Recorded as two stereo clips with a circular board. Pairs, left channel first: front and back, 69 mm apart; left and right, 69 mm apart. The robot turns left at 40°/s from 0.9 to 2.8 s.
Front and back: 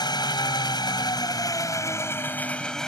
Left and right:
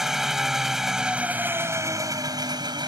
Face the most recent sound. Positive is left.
turn(degrees=-80)